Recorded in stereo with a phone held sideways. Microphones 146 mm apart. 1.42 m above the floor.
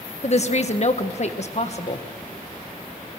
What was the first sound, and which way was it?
A woman speaking, 50° left (ahead or behind).